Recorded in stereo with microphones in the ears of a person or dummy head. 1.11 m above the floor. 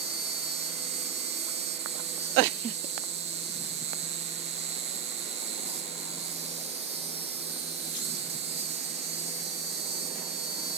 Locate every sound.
0.0 s an insect: 25° right (ahead or behind), 0.8 m